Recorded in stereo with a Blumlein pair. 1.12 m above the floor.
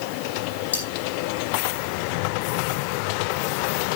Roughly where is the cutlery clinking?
Left.